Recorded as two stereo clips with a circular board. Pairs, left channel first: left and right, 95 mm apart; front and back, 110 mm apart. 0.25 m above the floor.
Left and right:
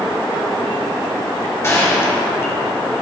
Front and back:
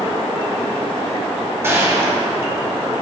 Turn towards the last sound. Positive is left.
turn(degrees=130)